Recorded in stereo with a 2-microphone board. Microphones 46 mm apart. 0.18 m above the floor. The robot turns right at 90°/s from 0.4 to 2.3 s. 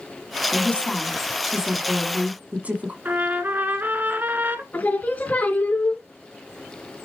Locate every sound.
0.5 s a woman speaking: 105° left, 1.6 m; by 3.0 s 95° right, 1.6 m
3.0 s a trumpet: 45° right (ahead or behind), 1.5 m
4.7 s singing: 35° left (ahead or behind), 2.5 m